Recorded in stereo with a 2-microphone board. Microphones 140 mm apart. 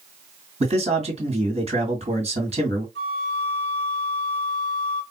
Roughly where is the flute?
Left.